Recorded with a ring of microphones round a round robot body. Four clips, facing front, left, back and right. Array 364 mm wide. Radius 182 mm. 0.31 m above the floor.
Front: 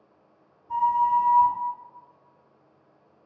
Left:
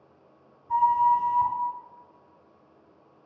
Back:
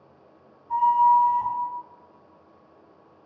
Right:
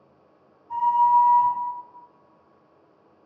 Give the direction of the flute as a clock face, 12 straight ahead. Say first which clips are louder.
Right 2 dB, back 4 dB; 9 o'clock.